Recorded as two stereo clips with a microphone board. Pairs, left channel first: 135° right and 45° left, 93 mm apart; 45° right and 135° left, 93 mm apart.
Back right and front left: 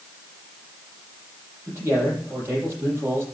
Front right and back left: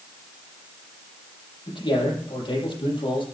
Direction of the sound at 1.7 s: 20° right.